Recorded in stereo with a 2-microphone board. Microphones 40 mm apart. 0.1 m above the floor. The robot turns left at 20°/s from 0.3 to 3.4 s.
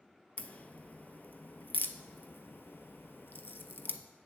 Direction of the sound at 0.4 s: 35° left (ahead or behind).